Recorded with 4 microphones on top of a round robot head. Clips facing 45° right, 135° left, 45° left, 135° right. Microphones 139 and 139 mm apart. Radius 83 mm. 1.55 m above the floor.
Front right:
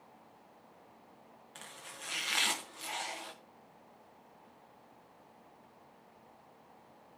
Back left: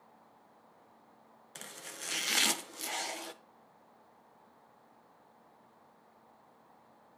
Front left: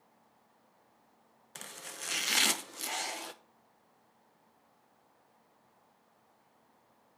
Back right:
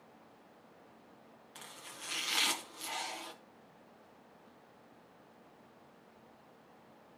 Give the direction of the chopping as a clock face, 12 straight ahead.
9 o'clock.